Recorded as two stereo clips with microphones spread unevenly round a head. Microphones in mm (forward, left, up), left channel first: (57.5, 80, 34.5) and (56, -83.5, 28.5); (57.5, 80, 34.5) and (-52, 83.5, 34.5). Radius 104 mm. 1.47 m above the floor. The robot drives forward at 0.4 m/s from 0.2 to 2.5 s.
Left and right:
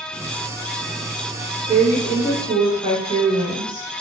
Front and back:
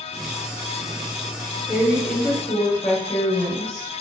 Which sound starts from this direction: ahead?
A woman speaking, at 1.7 s.